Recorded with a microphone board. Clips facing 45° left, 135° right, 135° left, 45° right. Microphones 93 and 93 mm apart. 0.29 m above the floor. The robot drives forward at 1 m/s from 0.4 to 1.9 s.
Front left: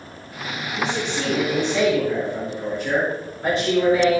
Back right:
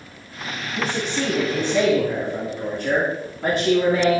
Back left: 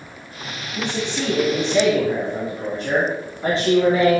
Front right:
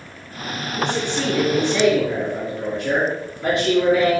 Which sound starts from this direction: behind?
A man speaking, at 0.8 s.